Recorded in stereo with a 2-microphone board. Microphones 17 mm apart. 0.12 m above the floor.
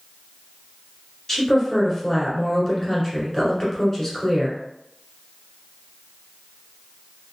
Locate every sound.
1.3 s a woman speaking: 15° left (ahead or behind), 1.3 m